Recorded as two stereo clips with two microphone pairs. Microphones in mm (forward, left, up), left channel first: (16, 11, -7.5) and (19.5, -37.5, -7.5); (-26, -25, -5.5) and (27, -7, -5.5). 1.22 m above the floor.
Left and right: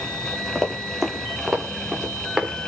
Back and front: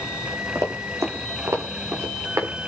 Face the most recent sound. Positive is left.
turn(degrees=-10)